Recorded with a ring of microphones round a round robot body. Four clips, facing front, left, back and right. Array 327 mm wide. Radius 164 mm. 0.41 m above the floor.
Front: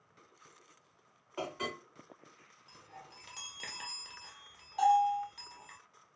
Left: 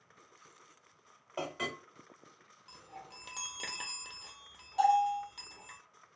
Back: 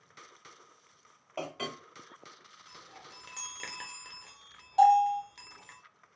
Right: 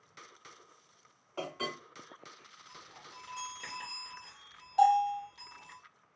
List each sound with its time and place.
1.4 s a clink: 150° left, 1.7 m
2.7 s a chime: 115° left, 0.6 m
4.8 s a bell: 155° right, 1.4 m